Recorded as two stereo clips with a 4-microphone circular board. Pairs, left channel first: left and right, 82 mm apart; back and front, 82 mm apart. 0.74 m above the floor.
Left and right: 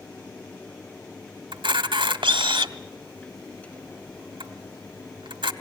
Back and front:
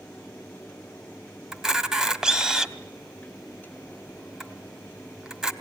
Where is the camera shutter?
85° right, 1.2 m.